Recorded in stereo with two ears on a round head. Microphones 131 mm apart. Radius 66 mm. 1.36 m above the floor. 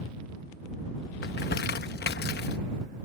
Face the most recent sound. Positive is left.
turn(degrees=70)  # may be behind; listen again after turning